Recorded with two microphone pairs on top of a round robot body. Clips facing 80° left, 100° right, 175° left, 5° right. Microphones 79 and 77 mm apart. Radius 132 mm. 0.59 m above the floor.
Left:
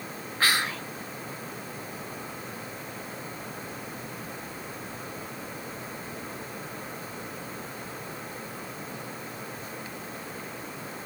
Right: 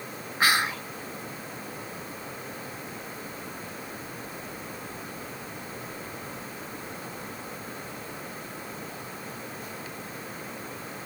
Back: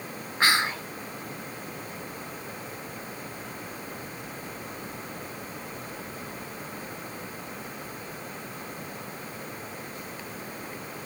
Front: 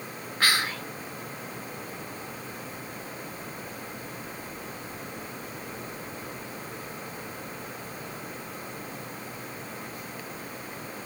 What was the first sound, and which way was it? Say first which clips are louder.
Whispering: right 2 dB, back 2 dB; 165° right.